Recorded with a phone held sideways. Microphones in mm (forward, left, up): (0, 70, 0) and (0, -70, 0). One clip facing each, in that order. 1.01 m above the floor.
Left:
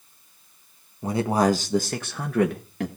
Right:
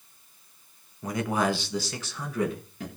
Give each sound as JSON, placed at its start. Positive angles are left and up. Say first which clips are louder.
{"t": 1.0, "sound": "a man speaking", "louder": "left 5 dB", "side_deg": 25, "distance_m": 1.3}